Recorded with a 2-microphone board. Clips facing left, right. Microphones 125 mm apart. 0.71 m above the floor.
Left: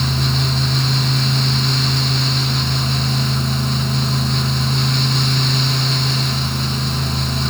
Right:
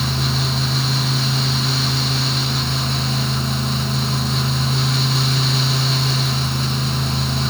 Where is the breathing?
No breathing in this recording.